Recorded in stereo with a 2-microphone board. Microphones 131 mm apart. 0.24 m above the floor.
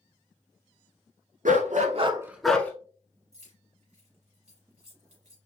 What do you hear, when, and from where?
1.4 s a dog barking: 80° right, 0.9 m; by 2.7 s 15° left (ahead or behind), 1.0 m
3.3 s keys jangling: 70° right (ahead or behind), 3 m